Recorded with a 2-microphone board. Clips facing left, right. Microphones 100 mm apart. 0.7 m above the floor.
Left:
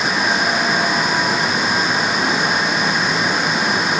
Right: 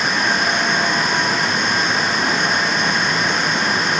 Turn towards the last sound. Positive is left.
No sound to turn to.